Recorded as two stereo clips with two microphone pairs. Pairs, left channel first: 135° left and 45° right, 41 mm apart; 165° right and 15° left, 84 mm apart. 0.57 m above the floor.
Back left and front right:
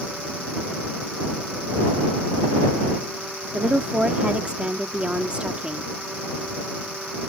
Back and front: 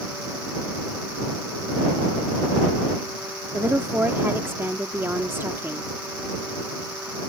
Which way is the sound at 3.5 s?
15° right.